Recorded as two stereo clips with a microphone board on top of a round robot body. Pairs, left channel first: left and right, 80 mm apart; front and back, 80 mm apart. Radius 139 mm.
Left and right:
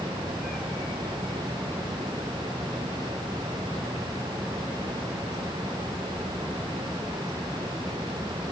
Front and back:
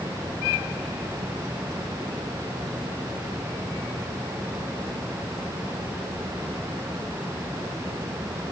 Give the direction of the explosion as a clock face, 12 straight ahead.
I don't hear an explosion.